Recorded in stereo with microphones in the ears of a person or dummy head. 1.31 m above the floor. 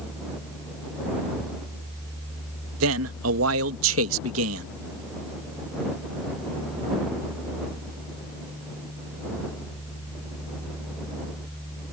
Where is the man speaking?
80° right.